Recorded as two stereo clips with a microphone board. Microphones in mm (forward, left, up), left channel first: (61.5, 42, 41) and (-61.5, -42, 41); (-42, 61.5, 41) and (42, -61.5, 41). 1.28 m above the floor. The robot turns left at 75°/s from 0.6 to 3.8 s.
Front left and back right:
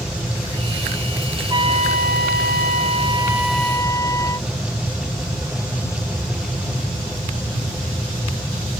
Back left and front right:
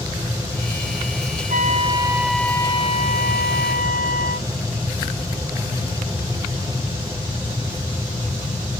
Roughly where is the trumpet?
Right.